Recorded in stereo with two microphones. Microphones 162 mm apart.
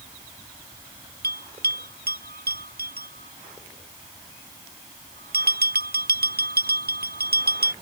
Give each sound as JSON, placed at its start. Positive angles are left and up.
{"t": 1.2, "sound": "a bell", "side_deg": -80}